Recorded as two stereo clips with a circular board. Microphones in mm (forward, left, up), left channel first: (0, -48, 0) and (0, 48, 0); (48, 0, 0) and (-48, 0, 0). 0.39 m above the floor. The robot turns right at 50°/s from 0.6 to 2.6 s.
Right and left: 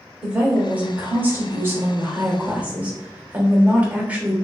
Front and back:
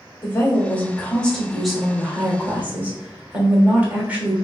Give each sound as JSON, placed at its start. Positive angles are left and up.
{"t": 0.2, "sound": "a woman speaking", "azimuth_deg": 35, "distance_m": 1.1}